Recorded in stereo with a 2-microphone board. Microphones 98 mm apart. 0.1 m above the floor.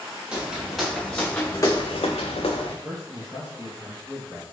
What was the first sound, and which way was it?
Footsteps, 10° right (ahead or behind).